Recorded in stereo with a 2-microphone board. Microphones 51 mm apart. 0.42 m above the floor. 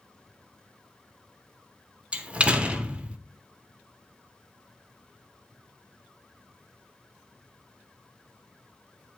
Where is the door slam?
25° right (ahead or behind), 0.9 m.